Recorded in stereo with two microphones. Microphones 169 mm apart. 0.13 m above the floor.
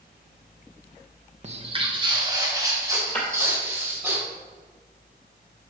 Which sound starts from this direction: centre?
Breaking glass, at 3.1 s.